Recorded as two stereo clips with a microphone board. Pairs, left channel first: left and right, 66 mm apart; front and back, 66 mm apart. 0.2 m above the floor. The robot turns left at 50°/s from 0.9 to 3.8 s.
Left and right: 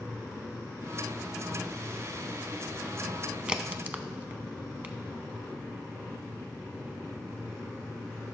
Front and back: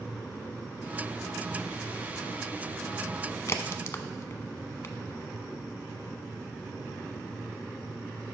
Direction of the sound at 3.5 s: 20° right.